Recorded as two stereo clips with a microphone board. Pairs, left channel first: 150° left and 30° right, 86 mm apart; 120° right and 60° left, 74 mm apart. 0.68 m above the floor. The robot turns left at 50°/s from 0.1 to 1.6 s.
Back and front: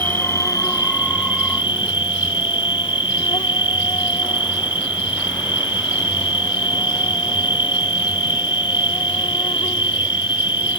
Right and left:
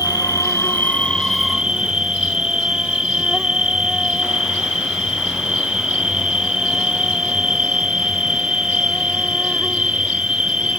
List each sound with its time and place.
0.0 s an insect: 145° right; by 10.8 s 140° left